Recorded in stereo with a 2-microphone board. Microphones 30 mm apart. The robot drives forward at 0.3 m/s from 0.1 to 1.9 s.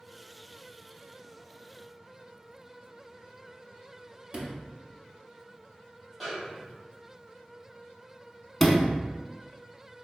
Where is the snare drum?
Centre (ahead or behind), 1.3 m.